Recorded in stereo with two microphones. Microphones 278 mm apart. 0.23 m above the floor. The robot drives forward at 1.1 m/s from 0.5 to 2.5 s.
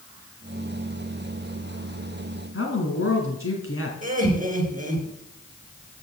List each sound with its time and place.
2.5 s a woman speaking: 50° left (ahead or behind), 2 m
4.0 s laughter: 30° right (ahead or behind), 4 m